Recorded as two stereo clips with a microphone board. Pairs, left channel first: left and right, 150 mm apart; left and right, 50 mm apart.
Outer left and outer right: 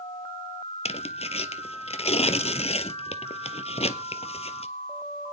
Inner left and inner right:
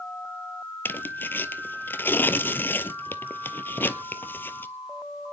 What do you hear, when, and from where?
0.8 s tearing paper: 45° left (ahead or behind), 0.9 m